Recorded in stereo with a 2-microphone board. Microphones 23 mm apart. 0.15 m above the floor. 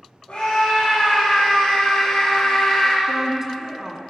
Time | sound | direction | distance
0.3 | a scream | 50° left (ahead or behind) | 4.5 m
3.1 | a woman speaking | 25° right (ahead or behind) | 1.7 m